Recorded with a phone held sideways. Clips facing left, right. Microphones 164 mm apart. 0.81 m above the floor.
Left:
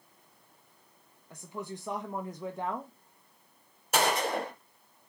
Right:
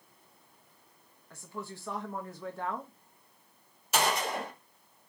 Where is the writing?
No writing in this recording.